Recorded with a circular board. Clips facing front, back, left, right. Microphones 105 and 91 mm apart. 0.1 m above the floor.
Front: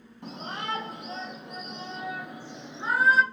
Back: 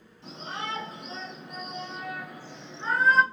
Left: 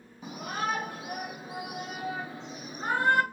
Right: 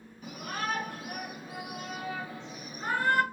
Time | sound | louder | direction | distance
0.2 | a shout | front 1 dB, left 3 dB | 30° left | 2.5 m